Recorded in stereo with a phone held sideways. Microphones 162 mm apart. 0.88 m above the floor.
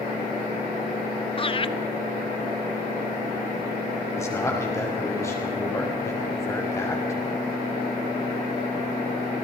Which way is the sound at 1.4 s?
35° left (ahead or behind).